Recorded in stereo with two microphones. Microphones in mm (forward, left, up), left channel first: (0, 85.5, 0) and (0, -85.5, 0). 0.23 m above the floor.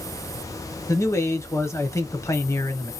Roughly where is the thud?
No thud in this recording.